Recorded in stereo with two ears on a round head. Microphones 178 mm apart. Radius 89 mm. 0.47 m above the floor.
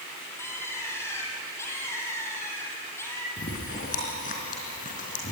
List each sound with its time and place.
0.4 s a bird: 15° left (ahead or behind), 4 m
3.4 s chewing: 40° left (ahead or behind), 4 m